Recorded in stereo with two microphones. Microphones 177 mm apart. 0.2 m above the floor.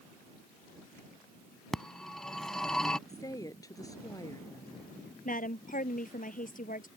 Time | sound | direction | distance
1.7 | a phone ringing | centre (ahead or behind) | ?
3.1 | a woman speaking | 20° left (ahead or behind) | ?
5.2 | a woman speaking | 55° left (ahead or behind) | ?